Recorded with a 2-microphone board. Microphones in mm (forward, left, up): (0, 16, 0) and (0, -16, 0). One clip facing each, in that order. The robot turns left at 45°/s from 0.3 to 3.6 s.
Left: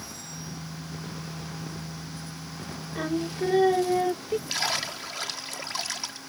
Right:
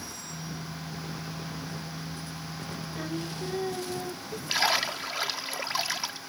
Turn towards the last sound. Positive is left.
turn(degrees=-15)  # may be behind; listen again after turning